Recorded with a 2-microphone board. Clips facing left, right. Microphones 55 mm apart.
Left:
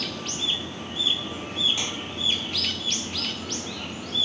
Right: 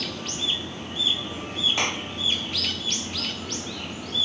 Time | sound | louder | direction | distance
1.8 | a clap | right 5 dB | 55° right (ahead or behind) | ?